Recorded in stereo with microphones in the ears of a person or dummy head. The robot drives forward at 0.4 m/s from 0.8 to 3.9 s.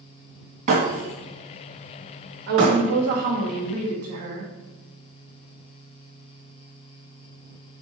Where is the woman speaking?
55° right (ahead or behind), 1.9 m; by 4.5 s 45° right (ahead or behind), 2.5 m.